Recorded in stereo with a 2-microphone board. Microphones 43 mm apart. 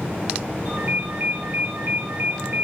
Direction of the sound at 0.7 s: 60° right (ahead or behind).